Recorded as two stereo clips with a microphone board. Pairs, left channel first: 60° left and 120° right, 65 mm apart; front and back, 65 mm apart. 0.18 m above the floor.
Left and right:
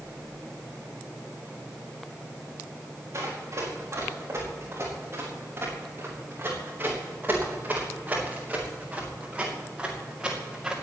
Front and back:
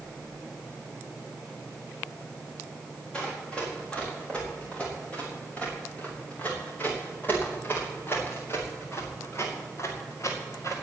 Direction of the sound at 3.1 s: 75° right.